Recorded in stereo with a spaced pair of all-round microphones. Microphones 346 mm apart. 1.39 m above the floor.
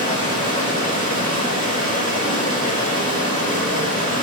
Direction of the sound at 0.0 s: 25° left (ahead or behind).